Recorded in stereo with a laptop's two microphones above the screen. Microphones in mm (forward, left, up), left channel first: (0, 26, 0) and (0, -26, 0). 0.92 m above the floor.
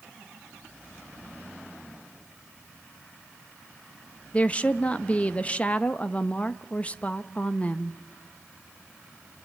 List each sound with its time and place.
4.3 s a woman speaking: 25° left (ahead or behind), 0.8 m